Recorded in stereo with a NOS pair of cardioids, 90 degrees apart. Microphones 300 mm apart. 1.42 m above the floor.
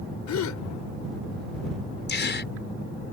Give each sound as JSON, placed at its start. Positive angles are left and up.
{"t": 0.3, "sound": "a gasp", "azimuth_deg": 65}
{"t": 2.1, "sound": "a gasp", "azimuth_deg": 35}